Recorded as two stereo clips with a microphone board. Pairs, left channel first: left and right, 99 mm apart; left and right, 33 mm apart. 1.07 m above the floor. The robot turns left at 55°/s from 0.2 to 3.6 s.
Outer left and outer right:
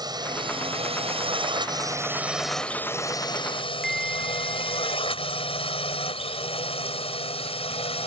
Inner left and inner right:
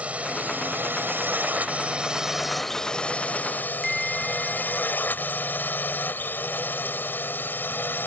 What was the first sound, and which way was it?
A drone, 45° right (ahead or behind).